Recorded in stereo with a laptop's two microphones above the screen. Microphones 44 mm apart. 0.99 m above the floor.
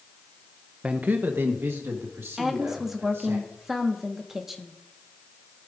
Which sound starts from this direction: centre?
A woman speaking, at 2.4 s.